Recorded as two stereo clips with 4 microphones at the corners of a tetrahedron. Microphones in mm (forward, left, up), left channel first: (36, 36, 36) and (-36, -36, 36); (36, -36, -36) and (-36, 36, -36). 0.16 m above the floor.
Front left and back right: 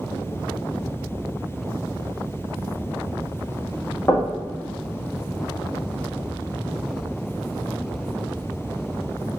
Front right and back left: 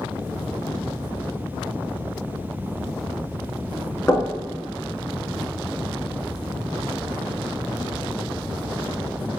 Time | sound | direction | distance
4.1 | knocking | straight ahead | 0.8 m